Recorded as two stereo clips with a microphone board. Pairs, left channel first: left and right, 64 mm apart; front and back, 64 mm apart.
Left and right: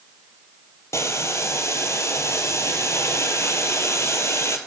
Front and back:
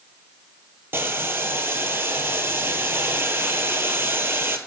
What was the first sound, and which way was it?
Boiling, 130° left.